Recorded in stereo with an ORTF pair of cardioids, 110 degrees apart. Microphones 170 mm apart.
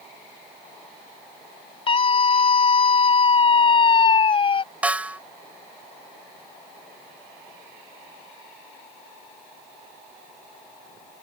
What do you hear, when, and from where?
1.9 s a scream: 35° left
4.8 s a snare drum: 10° right